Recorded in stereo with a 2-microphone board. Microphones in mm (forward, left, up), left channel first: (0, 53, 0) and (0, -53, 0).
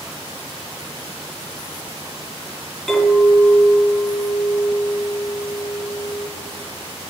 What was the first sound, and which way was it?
A clink, 5° left (ahead or behind).